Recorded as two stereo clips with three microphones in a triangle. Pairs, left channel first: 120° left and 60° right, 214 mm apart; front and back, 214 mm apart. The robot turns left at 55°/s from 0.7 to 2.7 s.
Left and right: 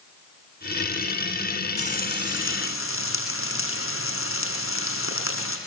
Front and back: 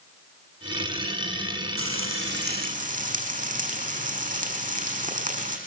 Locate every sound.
1.8 s frying: straight behind, 7 m; by 5.6 s 125° left, 7 m